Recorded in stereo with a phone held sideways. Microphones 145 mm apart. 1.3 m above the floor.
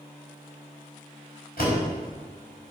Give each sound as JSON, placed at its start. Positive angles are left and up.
{"t": 1.6, "sound": "a door slam", "side_deg": 85, "distance_m": 5.0}